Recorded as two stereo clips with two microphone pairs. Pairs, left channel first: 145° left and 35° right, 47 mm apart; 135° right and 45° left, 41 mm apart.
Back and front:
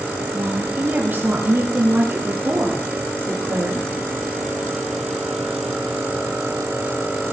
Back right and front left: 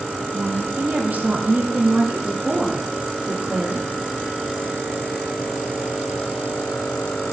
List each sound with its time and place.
0.3 s a woman speaking: 10° left, 5.5 m; by 3.9 s 10° right, 7 m